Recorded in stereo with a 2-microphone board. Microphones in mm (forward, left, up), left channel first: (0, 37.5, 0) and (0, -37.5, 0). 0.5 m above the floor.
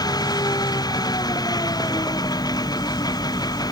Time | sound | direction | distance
0.0 | an engine running | 65° left (ahead or behind) | ?